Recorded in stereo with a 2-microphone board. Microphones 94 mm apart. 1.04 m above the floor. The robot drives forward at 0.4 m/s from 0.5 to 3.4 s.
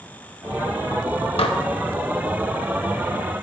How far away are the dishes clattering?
About 0.7 m.